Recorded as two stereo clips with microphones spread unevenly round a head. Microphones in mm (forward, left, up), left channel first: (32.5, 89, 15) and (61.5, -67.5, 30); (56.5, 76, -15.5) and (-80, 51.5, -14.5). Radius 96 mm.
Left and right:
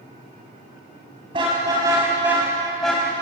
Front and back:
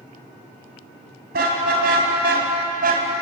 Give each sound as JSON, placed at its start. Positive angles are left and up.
{"t": 1.3, "sound": "a car horn", "azimuth_deg": -145, "distance_m": 5.5}